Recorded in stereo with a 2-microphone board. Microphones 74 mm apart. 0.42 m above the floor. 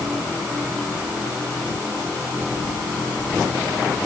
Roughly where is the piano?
No piano in this recording.